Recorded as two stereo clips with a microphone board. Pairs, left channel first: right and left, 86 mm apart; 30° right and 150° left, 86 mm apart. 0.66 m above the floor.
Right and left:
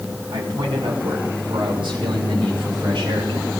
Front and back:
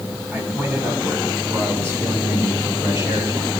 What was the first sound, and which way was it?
A man speaking, 85° left.